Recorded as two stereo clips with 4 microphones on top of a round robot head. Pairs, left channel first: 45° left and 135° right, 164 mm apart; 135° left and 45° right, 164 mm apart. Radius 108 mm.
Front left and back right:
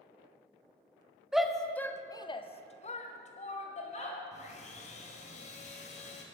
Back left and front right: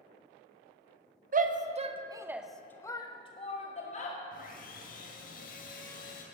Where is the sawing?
95° left, 2.5 m.